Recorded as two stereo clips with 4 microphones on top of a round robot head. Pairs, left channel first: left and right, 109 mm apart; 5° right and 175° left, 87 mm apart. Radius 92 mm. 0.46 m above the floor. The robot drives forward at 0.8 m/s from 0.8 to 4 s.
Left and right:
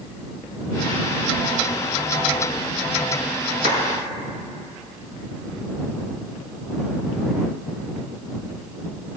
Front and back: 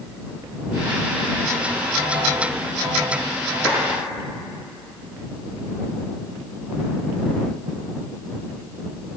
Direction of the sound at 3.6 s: 90° right.